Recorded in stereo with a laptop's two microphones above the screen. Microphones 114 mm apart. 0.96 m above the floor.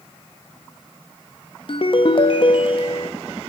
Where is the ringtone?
50° left (ahead or behind), 0.5 m.